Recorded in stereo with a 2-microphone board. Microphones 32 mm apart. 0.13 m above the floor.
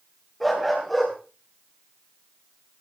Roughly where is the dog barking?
Centre.